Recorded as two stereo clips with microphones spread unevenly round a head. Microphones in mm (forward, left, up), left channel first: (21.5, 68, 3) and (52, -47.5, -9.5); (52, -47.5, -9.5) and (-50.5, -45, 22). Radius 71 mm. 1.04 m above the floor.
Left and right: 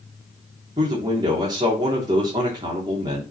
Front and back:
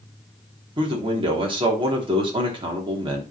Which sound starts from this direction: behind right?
A man speaking, at 0.8 s.